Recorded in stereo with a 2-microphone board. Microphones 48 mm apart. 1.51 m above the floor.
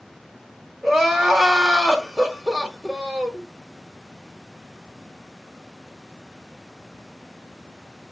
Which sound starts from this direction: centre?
Crying, at 0.8 s.